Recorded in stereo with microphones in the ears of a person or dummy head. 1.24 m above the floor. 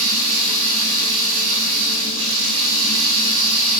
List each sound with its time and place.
0.0 s running water: 80° right, 7 m